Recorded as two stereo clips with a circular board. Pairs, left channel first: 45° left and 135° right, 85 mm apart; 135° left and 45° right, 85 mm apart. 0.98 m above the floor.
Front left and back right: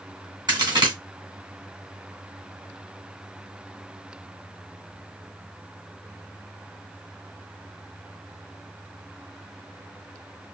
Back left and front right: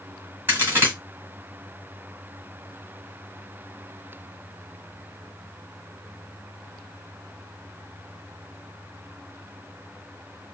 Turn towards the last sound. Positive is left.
turn(degrees=-105)